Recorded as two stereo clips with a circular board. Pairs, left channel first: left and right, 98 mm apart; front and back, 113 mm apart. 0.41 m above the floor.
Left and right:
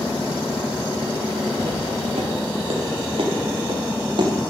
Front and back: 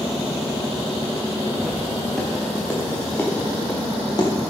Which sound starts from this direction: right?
Footsteps, at 1.6 s.